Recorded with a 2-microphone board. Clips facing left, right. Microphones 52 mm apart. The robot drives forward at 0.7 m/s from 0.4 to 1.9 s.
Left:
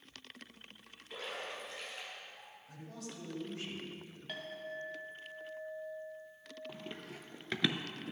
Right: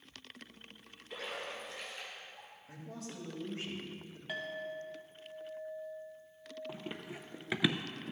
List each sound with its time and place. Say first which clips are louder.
1.1 s a splash: right 1 dB; centre (ahead or behind), 2.5 m
2.7 s a man speaking: right 2 dB; 30° right (ahead or behind), 2.5 m
4.3 s a clink: right 4 dB; 10° right (ahead or behind), 1.7 m
6.7 s running footsteps: right 2 dB; 15° right (ahead or behind), 1.1 m; by 8.1 s 5° left (ahead or behind), 0.7 m